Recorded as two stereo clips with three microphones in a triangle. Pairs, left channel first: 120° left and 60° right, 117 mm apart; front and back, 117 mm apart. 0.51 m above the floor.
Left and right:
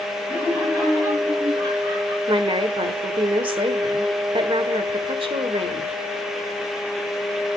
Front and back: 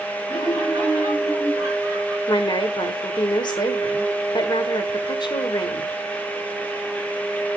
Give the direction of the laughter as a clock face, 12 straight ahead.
4 o'clock.